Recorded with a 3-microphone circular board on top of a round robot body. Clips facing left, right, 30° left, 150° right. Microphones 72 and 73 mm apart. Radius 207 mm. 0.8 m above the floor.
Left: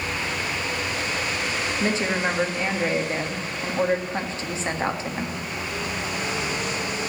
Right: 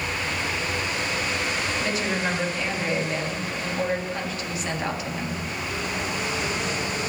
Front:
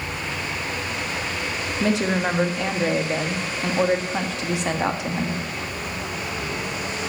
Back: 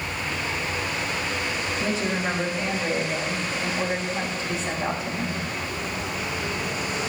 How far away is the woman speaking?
About 2.0 m.